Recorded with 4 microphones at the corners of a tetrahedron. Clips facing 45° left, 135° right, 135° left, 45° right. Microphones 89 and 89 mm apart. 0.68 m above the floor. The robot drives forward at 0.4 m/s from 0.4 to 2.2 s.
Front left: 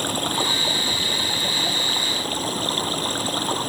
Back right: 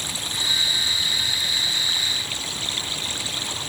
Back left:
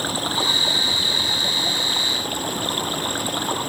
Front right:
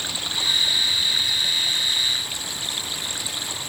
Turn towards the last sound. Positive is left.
turn(degrees=95)